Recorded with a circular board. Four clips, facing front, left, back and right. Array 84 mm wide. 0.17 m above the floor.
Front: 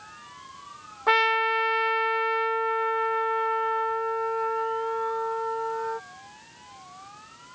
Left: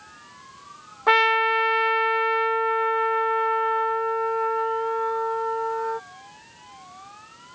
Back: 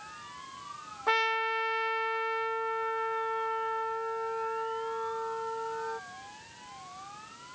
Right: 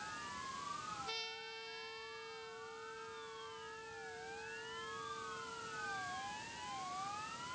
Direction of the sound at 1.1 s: 70° left.